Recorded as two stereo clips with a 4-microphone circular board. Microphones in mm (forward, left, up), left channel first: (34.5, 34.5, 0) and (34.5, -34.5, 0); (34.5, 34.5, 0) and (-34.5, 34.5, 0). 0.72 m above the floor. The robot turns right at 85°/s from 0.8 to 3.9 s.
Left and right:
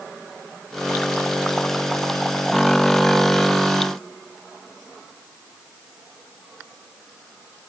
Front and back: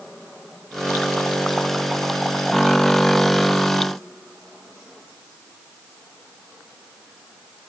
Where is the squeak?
I don't hear a squeak.